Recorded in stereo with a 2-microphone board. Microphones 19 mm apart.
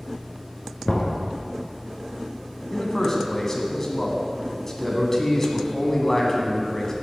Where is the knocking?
50° left (ahead or behind), 1.6 m.